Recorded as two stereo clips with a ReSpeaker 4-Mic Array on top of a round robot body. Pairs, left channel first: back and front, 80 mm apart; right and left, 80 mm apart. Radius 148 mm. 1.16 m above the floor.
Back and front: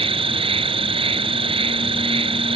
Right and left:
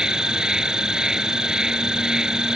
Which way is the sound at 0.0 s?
10° left.